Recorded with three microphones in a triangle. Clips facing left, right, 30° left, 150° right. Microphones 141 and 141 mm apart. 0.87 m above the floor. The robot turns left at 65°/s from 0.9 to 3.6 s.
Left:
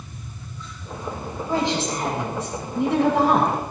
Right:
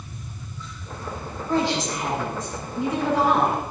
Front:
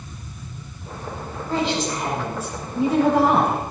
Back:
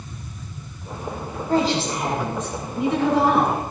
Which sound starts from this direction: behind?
A woman speaking, at 1.5 s.